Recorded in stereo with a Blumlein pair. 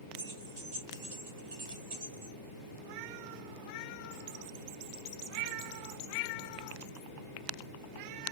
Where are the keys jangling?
50° right, 2 m.